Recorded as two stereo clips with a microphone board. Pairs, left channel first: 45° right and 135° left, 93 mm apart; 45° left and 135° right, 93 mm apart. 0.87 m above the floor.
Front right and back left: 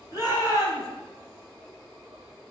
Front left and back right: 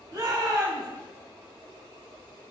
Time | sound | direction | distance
0.1 | a shout | 85° right | 5.5 m